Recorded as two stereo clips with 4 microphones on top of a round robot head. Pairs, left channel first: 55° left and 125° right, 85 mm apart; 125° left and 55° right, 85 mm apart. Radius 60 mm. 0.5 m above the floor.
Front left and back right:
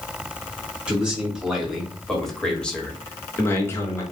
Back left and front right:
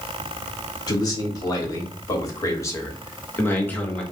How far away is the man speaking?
About 1.9 m.